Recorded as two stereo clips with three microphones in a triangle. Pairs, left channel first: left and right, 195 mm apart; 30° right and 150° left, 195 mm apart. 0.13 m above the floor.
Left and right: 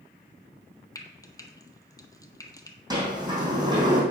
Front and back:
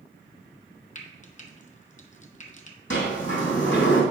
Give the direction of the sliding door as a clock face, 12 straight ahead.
1 o'clock.